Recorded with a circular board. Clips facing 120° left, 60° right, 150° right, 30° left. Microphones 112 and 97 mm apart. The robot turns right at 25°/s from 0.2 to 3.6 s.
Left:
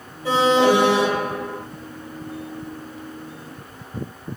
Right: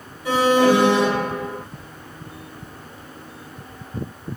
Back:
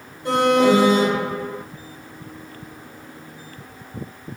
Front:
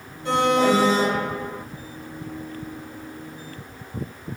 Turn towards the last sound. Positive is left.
turn(degrees=-100)